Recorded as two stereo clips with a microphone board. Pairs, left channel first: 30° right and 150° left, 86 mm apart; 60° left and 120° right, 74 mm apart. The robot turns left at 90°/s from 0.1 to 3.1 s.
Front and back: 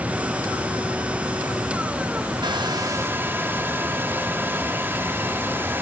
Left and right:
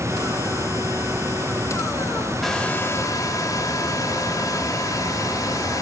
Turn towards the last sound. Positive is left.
turn(degrees=90)